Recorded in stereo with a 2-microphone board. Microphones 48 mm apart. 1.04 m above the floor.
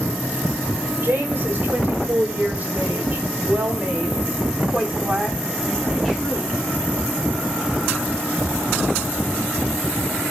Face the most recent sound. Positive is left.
turn(degrees=0)  # may be behind; listen again after turning